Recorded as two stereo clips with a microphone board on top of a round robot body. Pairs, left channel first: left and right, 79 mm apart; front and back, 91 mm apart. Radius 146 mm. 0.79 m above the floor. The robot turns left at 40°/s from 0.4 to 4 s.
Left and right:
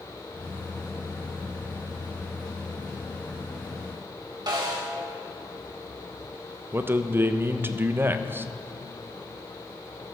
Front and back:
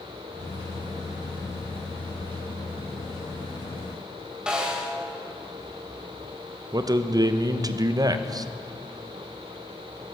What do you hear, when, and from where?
4.5 s a snare drum: 100° right, 2.5 m
6.7 s a man speaking: 145° right, 0.6 m